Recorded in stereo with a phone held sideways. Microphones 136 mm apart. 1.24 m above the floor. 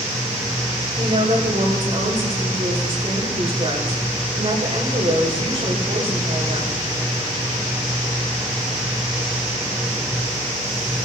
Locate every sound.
0.9 s a woman speaking: 50° right (ahead or behind), 4.5 m